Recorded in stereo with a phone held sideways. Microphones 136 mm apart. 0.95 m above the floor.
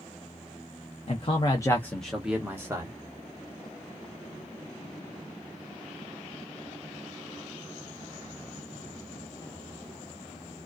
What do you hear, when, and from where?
1.1 s a man speaking: 45° left (ahead or behind), 0.7 m; by 3.0 s 25° right (ahead or behind), 0.9 m